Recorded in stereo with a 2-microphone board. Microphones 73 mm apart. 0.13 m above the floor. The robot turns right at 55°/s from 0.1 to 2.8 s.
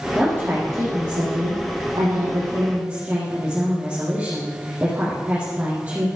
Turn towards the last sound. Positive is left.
turn(degrees=-20)